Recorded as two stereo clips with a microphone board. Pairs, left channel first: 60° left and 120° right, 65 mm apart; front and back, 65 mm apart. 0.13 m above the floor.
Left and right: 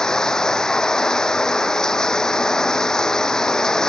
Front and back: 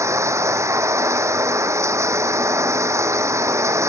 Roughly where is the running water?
Behind left.